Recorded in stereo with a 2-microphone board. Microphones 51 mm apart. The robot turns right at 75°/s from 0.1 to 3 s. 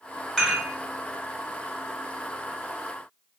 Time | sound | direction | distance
0.4 | dishes clattering | 10° left (ahead or behind) | 1.4 m